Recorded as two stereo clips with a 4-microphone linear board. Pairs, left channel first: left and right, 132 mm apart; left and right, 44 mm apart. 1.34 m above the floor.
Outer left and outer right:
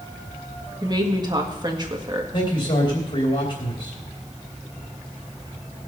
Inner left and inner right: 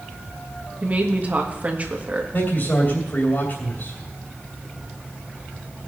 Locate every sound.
0.8 s a woman speaking: 30° right (ahead or behind), 1.8 m
2.3 s a man speaking: 50° left (ahead or behind), 2.5 m